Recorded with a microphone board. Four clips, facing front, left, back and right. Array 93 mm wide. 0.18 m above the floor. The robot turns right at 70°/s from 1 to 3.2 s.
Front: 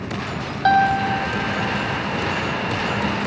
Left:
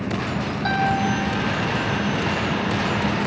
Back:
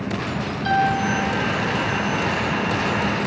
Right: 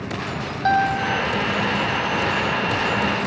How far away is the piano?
About 3.5 m.